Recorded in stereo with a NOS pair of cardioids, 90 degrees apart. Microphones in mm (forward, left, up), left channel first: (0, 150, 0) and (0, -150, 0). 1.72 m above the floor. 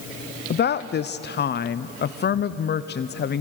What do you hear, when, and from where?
0.5 s a woman speaking: 35° left, 0.7 m